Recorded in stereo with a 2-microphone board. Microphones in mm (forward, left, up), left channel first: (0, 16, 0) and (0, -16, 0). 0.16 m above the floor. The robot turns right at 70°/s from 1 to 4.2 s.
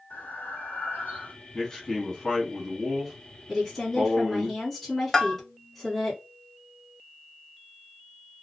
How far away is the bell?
About 0.5 m.